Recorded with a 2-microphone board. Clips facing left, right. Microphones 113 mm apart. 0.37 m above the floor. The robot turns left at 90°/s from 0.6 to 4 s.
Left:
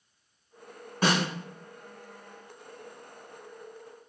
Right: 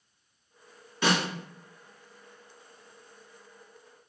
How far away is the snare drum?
About 1.5 m.